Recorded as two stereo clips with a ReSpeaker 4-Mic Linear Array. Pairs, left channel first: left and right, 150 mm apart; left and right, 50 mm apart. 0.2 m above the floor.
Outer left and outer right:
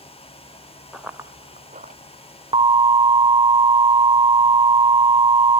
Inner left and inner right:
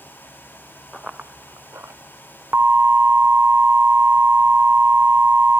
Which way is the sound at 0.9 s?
5° left (ahead or behind).